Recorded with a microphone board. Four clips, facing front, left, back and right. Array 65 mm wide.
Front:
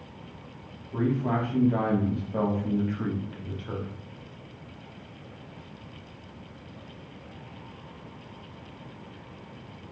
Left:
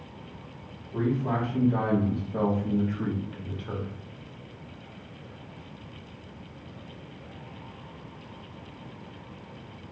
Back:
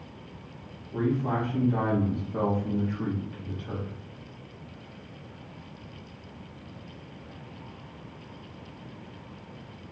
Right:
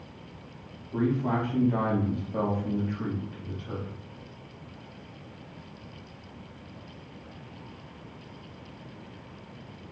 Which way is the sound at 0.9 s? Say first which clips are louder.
Right 1 dB, front 1 dB; 45° right.